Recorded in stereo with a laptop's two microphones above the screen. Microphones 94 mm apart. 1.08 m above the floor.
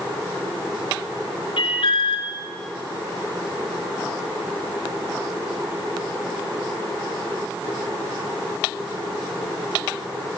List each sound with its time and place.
1.6 s an alarm: 85° left, 4 m